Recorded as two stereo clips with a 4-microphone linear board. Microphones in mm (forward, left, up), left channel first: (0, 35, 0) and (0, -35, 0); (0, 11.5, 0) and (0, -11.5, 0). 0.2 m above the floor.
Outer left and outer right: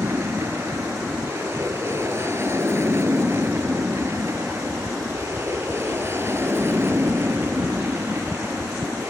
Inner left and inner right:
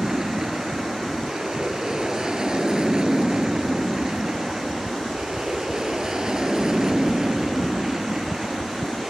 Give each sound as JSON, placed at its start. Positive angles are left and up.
{"t": 0.0, "sound": "an aircraft", "side_deg": -40}